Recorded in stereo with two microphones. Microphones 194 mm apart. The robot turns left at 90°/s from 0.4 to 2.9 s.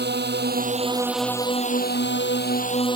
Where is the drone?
110° right; by 3.0 s 25° left.